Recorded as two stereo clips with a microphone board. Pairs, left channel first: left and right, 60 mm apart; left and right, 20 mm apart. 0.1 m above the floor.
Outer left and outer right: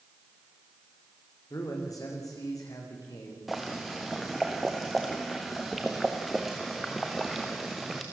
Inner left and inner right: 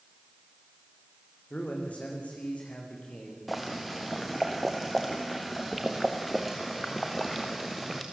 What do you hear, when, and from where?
1.5 s a man speaking: 75° left (ahead or behind), 7 m; by 3.4 s 80° left, 8 m
3.5 s boiling: centre (ahead or behind), 2.5 m